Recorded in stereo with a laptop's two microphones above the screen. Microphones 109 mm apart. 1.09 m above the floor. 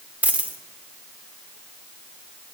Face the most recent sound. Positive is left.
turn(degrees=-15)  # may be behind; listen again after turning